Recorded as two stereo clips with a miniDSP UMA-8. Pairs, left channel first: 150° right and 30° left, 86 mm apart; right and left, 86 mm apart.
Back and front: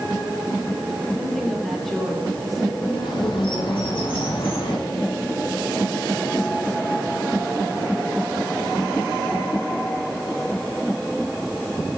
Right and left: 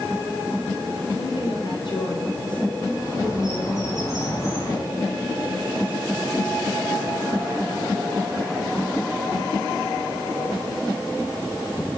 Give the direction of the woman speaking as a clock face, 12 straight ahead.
2 o'clock.